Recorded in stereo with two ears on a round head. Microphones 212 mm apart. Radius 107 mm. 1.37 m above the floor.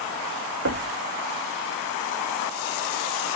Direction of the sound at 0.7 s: 60° right (ahead or behind).